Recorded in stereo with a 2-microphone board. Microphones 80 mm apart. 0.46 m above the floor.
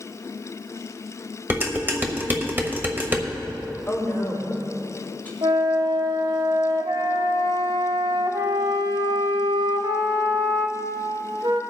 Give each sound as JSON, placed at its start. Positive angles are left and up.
{"t": 1.5, "sound": "dishes clattering", "side_deg": -25, "distance_m": 1.2}
{"t": 3.9, "sound": "a woman speaking", "side_deg": 20, "distance_m": 3.5}
{"t": 5.4, "sound": "a flute", "side_deg": -70, "distance_m": 0.8}